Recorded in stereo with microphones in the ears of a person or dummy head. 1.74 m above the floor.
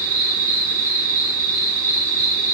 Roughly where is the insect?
Centre.